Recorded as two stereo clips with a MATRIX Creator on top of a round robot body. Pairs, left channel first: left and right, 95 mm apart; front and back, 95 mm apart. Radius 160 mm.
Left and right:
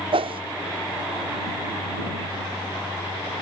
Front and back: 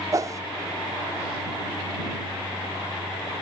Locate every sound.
0.1 s a whoosh: 120° right